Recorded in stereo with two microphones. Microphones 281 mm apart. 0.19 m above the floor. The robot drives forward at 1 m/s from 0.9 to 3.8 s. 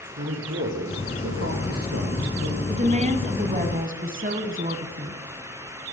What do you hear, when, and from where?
0.2 s a man speaking: 50° right (ahead or behind), 5.5 m; by 2.6 s 65° right (ahead or behind), 5 m
2.7 s a woman speaking: 25° right (ahead or behind), 1.8 m; by 5.2 s 30° right (ahead or behind), 1.4 m